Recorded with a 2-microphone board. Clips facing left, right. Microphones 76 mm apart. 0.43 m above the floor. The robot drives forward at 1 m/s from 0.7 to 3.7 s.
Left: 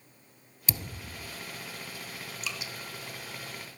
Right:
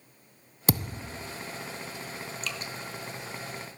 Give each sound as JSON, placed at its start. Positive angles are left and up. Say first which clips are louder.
{"t": 0.7, "sound": "a thud", "louder": "right 9 dB", "side_deg": -60, "distance_m": 0.6}
{"t": 2.4, "sound": "dripping", "louder": "even", "side_deg": 10, "distance_m": 0.8}